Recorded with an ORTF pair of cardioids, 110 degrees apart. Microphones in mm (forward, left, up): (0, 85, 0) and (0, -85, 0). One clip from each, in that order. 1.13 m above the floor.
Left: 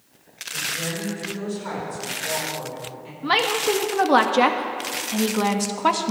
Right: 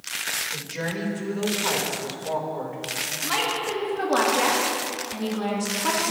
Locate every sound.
0.5 s a woman speaking: 45° right, 4.5 m; by 3.1 s 20° right, 4 m
3.2 s a woman speaking: 55° left, 1.8 m